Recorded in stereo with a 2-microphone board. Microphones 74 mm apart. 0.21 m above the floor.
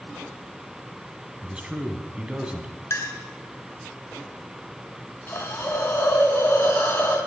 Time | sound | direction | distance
1.4 | a man speaking | 15° right (ahead or behind) | 1.6 m
2.9 | a clink | 40° left (ahead or behind) | 1.5 m
5.3 | a hiss | 30° left (ahead or behind) | 1.8 m